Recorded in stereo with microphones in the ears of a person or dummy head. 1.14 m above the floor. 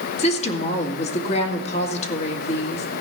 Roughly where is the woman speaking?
Left.